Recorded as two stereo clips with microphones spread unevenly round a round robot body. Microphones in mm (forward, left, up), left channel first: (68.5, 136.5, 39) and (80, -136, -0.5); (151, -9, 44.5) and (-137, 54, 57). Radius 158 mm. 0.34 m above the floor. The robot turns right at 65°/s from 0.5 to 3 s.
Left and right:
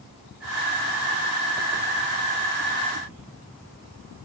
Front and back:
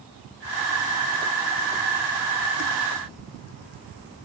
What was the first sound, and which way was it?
Only background noise.